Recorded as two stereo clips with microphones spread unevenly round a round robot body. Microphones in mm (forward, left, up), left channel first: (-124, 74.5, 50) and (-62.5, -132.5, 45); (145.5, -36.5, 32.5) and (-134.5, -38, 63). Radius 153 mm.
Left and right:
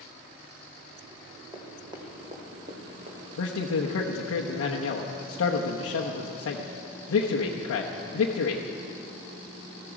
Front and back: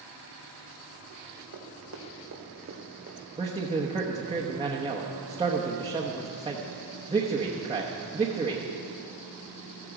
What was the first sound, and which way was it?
Running footsteps, 150° right.